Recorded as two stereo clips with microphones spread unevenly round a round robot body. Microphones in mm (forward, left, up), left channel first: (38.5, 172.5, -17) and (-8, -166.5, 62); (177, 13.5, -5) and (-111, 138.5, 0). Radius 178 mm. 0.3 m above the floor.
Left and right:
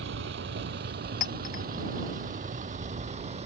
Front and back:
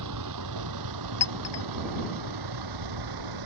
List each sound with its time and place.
0.0 s a vehicle: 155° right; by 3.5 s 170° right
1.2 s a clink: 15° left